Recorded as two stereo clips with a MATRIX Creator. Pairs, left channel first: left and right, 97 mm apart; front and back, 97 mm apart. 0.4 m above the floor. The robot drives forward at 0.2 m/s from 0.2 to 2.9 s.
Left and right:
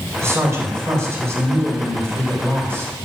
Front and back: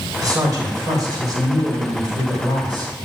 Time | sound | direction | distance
0.2 | a man speaking | 140° right | 2.5 m